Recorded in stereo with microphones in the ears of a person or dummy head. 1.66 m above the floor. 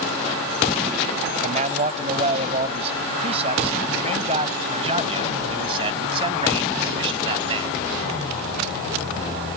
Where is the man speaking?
40° right (ahead or behind); by 7.7 s 30° right (ahead or behind).